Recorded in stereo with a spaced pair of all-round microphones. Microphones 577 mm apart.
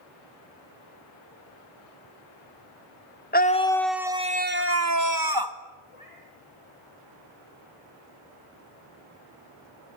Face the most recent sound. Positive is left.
turn(degrees=60)  # may be behind; listen again after turning